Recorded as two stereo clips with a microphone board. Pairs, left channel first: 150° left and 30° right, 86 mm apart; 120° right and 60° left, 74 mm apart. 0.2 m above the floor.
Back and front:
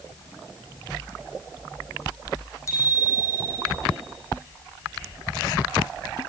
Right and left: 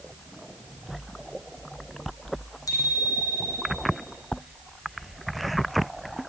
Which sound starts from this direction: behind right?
A bicycle bell, at 2.7 s.